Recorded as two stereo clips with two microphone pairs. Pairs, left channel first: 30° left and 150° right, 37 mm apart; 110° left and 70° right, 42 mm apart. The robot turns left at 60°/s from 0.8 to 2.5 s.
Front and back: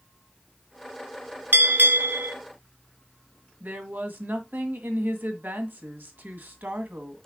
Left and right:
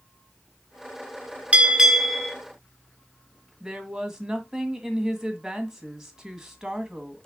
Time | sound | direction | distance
1.5 | a bell | 125° right | 1.4 m
3.6 | a woman speaking | 145° right | 1.9 m